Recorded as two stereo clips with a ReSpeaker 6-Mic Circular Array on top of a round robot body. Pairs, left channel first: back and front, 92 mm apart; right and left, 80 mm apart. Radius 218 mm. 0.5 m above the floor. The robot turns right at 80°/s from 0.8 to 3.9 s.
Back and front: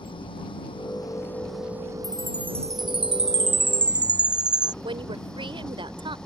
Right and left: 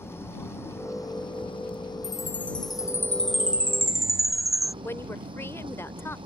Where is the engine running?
150° right; by 6.3 s 95° left.